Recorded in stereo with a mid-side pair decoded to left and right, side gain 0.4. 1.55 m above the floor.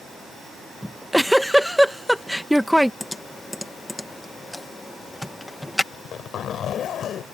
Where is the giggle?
Straight ahead.